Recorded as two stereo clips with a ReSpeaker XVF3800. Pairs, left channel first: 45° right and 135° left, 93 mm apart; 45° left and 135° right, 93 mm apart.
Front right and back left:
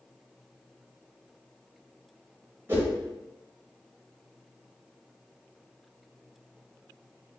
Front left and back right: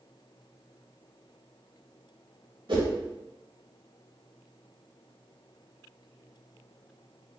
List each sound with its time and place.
2.7 s a whoosh: 160° right, 1.3 m